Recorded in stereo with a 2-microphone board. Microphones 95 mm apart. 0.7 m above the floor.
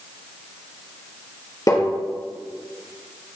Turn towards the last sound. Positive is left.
turn(degrees=40)  # may be behind; listen again after turning